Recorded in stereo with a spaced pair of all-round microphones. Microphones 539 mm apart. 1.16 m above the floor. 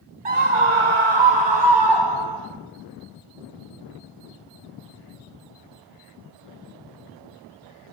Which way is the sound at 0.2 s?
65° right (ahead or behind).